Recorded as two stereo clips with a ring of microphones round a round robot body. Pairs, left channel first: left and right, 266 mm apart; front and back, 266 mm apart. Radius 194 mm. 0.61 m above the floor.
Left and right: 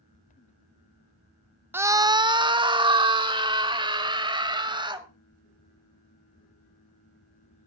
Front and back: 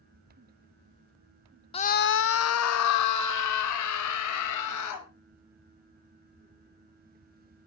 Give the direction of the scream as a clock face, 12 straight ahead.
1 o'clock.